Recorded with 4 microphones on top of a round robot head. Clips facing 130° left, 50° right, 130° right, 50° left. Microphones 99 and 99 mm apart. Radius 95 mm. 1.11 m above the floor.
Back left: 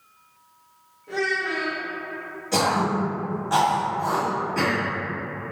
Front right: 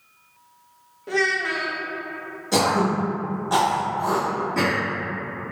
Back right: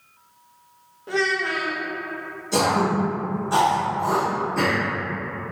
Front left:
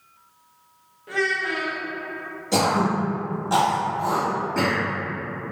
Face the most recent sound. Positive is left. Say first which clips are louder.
# front right 2 dB, even
turn(degrees=25)